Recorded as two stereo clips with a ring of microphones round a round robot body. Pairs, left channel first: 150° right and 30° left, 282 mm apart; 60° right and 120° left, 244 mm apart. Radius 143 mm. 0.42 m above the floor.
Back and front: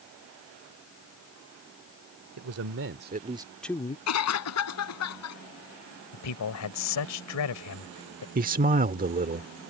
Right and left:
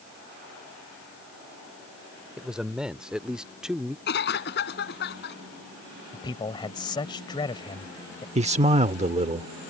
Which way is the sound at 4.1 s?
115° right.